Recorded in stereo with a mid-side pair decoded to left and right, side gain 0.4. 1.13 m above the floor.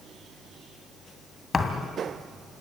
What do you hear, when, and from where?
1.5 s a thud: 45° left, 2.5 m